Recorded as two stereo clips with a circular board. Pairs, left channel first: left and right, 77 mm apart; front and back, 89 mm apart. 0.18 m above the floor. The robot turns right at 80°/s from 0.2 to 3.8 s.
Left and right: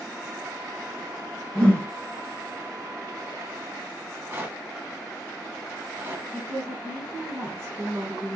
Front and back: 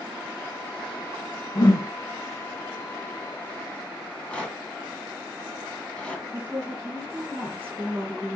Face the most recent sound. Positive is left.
turn(degrees=-115)